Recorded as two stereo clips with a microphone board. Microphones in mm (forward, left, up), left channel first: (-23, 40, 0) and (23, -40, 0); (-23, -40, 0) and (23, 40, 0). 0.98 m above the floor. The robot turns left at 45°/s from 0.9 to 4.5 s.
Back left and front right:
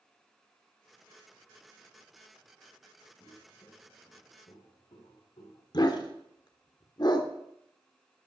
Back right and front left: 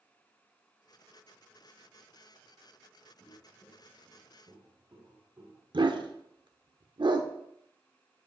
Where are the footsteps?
165° left, 3.5 m; by 5.6 s 115° left, 5 m.